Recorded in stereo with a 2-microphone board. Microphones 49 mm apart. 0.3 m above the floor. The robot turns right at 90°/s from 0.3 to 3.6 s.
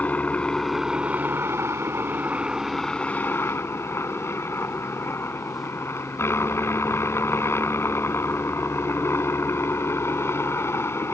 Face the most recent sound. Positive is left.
turn(degrees=80)